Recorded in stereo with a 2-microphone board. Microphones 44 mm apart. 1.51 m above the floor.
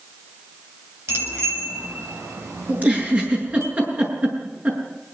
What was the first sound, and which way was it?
A bicycle bell, 70° right (ahead or behind).